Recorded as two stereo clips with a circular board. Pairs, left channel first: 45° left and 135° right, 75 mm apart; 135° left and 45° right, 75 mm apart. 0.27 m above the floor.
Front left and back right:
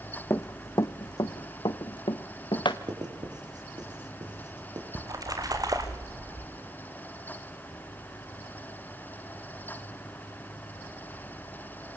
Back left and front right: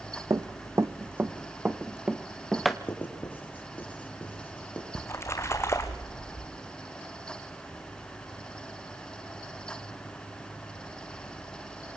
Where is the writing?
160° right, 6 m.